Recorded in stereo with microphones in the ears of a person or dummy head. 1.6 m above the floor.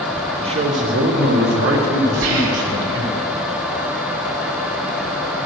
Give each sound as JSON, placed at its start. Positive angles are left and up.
{"t": 0.4, "sound": "a man speaking", "side_deg": -30, "distance_m": 1.1}
{"t": 2.2, "sound": "whispering", "side_deg": -75, "distance_m": 3.0}